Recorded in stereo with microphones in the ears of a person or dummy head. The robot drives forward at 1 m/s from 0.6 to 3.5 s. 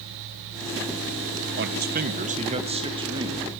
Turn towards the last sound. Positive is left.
turn(degrees=-20)  # may be behind; listen again after turning